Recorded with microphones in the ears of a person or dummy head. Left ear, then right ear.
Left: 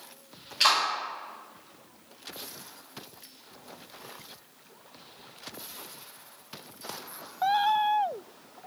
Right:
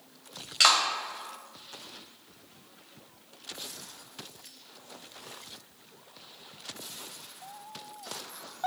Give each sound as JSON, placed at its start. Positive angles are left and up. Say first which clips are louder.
{"t": 0.6, "sound": "a clap", "louder": "right 1 dB", "side_deg": -55, "distance_m": 1.5}